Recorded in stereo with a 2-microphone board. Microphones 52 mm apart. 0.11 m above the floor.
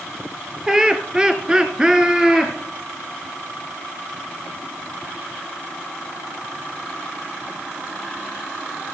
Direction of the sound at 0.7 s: 15° right (ahead or behind).